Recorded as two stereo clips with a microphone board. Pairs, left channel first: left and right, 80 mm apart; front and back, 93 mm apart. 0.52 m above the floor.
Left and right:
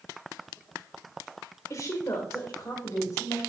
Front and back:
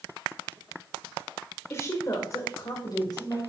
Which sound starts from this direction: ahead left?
A woman speaking, at 1.7 s.